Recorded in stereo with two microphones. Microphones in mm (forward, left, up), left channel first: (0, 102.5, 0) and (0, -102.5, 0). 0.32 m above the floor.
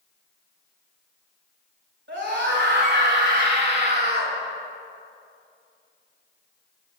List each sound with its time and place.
2.1 s a scream: 65° right (ahead or behind), 5.5 m; by 4.4 s 50° right (ahead or behind), 3.5 m